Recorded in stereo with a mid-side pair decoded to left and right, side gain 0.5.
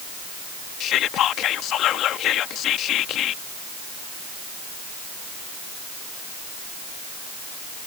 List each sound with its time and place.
0.8 s whispering: 65° left